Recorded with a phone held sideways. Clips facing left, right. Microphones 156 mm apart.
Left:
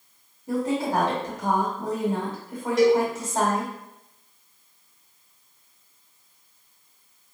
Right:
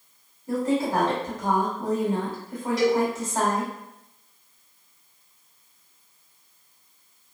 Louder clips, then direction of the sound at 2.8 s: Left 4 dB; 50° left (ahead or behind).